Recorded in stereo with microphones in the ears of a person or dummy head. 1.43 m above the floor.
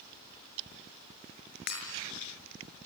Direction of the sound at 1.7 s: 60° left (ahead or behind).